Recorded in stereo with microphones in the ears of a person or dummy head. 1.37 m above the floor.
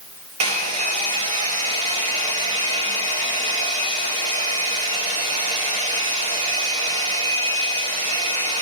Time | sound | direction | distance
0.4 | a hair dryer | 35° right (ahead or behind) | 0.8 m